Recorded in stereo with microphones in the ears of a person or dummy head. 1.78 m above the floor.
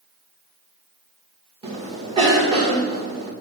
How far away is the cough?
About 2 m.